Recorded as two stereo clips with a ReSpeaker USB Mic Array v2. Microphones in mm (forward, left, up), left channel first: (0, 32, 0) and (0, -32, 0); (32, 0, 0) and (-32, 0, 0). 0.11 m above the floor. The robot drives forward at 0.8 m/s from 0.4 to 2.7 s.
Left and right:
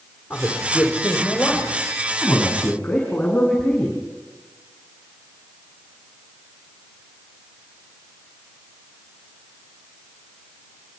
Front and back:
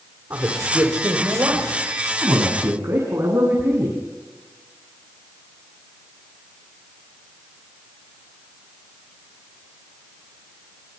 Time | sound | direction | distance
0.3 | a man speaking | 160° left | 4.5 m